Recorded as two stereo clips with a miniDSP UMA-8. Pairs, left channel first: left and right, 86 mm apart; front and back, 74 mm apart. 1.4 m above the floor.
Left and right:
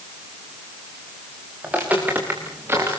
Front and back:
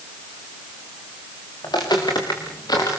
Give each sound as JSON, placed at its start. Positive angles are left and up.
{"t": 1.6, "sound": "footsteps", "azimuth_deg": -15, "distance_m": 7.5}